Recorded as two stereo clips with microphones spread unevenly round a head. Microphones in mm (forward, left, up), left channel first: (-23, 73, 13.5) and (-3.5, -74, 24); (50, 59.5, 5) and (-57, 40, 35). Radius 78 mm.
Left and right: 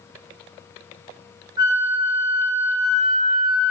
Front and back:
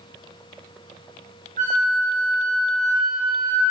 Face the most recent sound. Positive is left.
turn(degrees=-145)